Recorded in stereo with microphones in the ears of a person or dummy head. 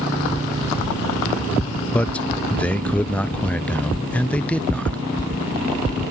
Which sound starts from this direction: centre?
A man speaking, at 1.9 s.